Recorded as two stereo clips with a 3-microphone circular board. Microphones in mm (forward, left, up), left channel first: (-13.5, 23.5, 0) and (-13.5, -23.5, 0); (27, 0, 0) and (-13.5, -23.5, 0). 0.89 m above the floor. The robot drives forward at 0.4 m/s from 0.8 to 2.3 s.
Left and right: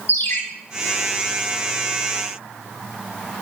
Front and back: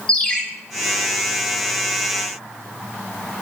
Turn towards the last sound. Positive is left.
turn(degrees=115)